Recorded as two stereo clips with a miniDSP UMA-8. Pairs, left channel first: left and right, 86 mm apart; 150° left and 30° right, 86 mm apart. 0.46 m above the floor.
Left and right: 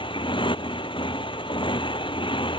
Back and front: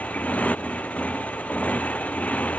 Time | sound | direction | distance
0.0 | a motorcycle | 75° left | ?